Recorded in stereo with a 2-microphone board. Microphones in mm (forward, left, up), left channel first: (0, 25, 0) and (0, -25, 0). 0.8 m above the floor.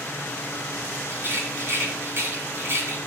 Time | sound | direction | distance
1.1 | a rattle | 60° right (ahead or behind) | 3.5 m